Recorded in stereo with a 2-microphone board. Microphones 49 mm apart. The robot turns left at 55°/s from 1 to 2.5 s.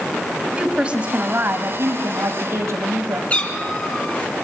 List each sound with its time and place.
0.6 s a woman speaking: 20° right, 4 m; by 3.2 s 105° right, 4 m
3.3 s a cat meowing: 25° left (ahead or behind), 4 m